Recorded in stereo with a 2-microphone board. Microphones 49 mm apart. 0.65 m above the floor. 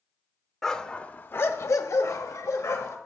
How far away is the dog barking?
About 0.6 m.